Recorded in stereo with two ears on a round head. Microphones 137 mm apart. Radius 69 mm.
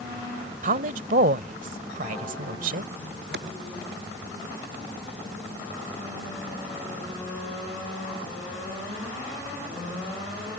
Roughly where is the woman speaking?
Right.